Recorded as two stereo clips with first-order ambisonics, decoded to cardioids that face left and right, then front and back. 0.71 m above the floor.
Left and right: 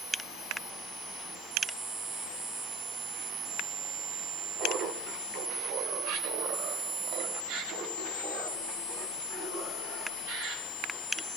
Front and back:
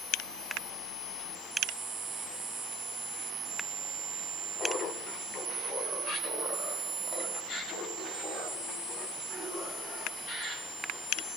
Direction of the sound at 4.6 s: 55° right.